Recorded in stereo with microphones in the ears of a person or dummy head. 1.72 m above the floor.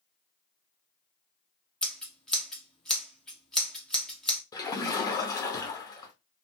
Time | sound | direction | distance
1.8 | scissors | 5° left (ahead or behind) | 0.9 m
4.5 | a splash | 20° left (ahead or behind) | 0.8 m